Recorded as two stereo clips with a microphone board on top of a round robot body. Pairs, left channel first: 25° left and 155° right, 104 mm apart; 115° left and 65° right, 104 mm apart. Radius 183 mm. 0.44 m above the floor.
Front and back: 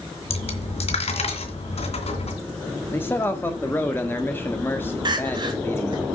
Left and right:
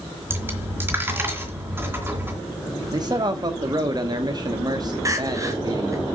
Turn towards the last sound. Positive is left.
turn(degrees=-120)